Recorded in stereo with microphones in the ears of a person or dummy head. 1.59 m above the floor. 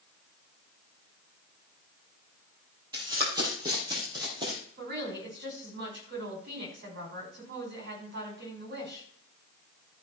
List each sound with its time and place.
2.9 s running footsteps: 25° right (ahead or behind), 3 m
4.8 s a woman speaking: 60° right (ahead or behind), 5 m